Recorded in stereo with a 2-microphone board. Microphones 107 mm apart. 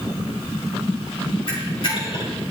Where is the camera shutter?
50° left (ahead or behind), 1.8 m.